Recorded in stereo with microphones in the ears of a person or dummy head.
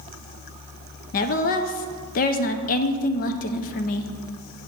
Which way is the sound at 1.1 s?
45° left (ahead or behind).